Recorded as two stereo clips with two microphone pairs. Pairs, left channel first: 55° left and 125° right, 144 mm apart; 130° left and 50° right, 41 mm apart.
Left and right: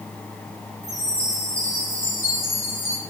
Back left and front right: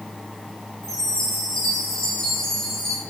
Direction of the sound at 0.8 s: 155° right.